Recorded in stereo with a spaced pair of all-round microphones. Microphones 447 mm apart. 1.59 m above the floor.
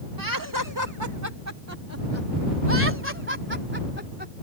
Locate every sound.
0.2 s laughter: 50° right (ahead or behind); by 4.3 s 20° right (ahead or behind)